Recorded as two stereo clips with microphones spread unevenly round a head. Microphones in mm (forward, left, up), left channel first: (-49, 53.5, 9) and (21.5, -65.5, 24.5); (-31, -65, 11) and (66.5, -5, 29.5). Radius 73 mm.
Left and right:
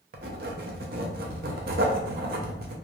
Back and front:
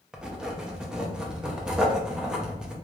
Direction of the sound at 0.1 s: 45° right.